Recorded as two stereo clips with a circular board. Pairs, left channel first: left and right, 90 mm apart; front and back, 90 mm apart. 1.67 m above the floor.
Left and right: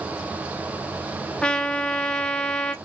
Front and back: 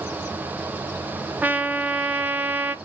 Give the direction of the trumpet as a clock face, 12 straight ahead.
7 o'clock.